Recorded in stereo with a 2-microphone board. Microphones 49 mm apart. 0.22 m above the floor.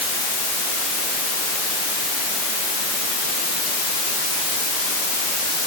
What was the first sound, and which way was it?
Only background noise.